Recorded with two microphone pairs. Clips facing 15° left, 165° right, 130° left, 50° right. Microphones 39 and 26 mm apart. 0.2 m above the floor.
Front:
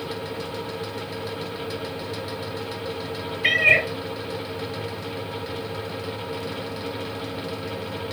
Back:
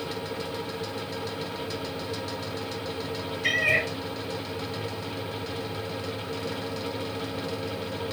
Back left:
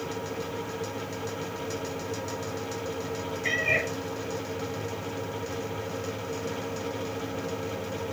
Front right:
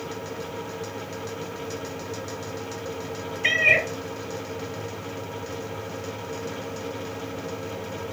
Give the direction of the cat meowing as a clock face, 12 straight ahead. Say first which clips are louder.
Front 6 dB, front right 7 dB; 1 o'clock.